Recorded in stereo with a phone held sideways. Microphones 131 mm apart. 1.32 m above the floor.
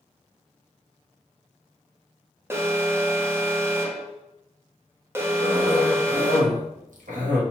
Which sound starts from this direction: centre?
An alarm, at 2.5 s.